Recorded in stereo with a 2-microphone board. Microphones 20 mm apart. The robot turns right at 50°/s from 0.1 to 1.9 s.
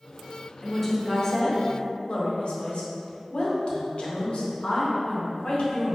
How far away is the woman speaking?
About 0.7 m.